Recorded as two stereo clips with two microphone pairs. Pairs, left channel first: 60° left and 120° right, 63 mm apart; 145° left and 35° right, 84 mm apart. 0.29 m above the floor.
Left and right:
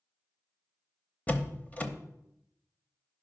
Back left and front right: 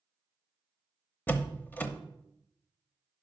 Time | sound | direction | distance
1.3 | a door slam | 100° left | 0.9 m